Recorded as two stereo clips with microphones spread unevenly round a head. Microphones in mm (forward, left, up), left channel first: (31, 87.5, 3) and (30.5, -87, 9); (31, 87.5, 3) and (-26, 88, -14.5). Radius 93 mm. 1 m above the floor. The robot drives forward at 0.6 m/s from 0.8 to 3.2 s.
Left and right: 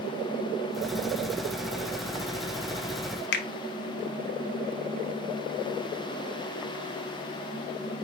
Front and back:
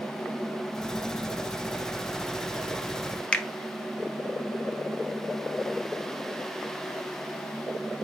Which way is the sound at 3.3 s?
80° left.